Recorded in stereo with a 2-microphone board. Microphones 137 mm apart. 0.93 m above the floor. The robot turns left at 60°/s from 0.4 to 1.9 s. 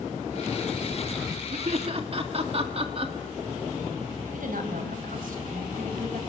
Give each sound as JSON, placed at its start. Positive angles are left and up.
{"t": 1.5, "sound": "laughter", "side_deg": -60, "distance_m": 2.0}
{"t": 4.3, "sound": "a woman speaking", "side_deg": -80, "distance_m": 4.5}